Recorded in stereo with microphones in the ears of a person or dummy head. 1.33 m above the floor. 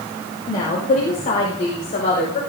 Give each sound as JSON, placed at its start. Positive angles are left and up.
{"t": 0.5, "sound": "a woman speaking", "side_deg": 25, "distance_m": 5.0}